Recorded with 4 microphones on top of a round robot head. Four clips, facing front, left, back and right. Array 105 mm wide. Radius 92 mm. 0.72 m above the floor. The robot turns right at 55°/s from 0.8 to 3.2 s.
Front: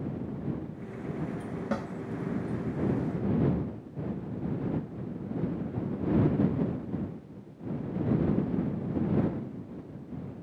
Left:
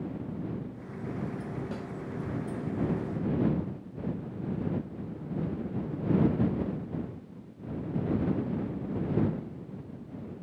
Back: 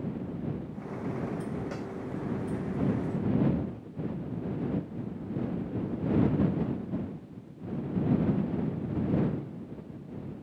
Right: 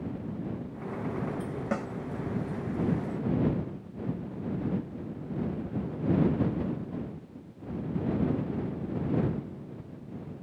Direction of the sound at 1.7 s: 50° right.